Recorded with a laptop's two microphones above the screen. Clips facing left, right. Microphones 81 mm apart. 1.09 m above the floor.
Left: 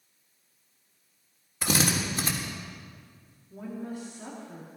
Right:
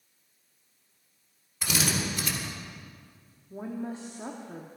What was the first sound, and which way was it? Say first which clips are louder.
A drill: left 3 dB; 40° left (ahead or behind).